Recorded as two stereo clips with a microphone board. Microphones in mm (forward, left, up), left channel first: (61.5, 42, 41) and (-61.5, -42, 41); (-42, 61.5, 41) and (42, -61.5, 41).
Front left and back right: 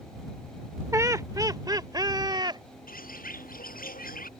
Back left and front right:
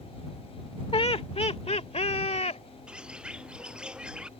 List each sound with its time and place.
0.9 s laughter: 155° left; by 2.6 s 160° left
2.9 s a bird: 30° left